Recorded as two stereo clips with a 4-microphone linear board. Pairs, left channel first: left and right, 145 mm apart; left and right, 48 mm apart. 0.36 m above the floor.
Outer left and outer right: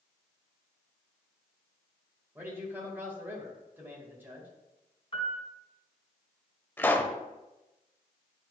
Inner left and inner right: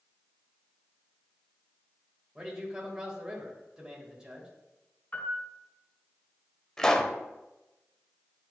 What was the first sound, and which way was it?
A man speaking, 15° right (ahead or behind).